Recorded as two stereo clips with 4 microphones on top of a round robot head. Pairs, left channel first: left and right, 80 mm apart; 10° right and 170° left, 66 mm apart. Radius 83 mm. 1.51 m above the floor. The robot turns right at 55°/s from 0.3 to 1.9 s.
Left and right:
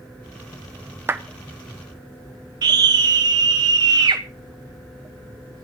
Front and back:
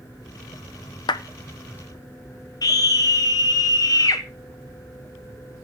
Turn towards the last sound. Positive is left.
turn(degrees=-50)